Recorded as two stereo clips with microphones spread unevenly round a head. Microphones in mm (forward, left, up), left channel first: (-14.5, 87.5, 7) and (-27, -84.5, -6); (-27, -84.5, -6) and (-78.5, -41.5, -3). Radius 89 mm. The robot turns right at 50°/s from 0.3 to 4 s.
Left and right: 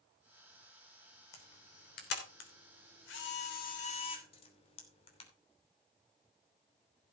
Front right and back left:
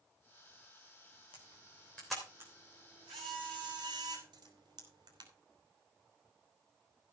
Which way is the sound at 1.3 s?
10° left.